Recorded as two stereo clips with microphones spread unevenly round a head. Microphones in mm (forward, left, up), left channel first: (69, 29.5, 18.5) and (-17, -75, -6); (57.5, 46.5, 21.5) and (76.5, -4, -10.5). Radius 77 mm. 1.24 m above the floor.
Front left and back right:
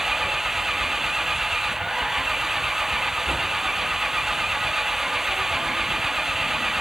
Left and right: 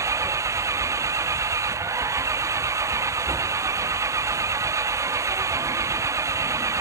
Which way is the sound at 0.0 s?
40° right.